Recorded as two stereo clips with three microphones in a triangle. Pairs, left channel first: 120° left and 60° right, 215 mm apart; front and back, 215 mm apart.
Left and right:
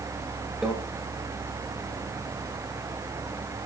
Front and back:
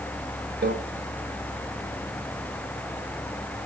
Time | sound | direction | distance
0.6 | a microwave | 150° right | 2 m